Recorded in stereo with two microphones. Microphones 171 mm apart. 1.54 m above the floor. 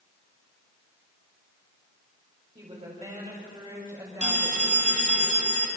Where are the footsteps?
I don't hear footsteps.